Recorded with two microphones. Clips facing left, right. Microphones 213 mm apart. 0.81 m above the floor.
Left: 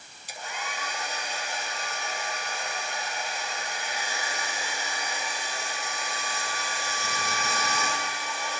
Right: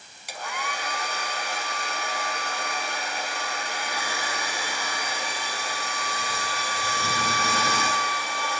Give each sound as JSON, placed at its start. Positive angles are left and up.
{"t": 0.3, "sound": "a hair dryer", "side_deg": -75, "distance_m": 5.0}